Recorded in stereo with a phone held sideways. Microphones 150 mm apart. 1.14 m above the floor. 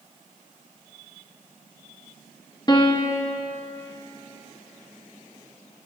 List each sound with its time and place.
2.7 s a piano: 30° left (ahead or behind), 0.6 m